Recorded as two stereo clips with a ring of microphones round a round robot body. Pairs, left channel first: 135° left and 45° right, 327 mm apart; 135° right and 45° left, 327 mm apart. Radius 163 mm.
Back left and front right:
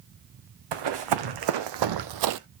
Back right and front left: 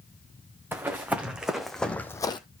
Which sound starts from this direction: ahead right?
Running footsteps, at 0.7 s.